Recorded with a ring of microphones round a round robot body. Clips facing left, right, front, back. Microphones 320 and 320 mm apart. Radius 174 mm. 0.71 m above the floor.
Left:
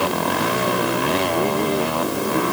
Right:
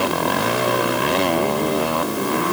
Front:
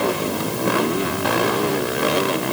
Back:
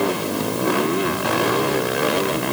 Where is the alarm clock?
No alarm clock in this recording.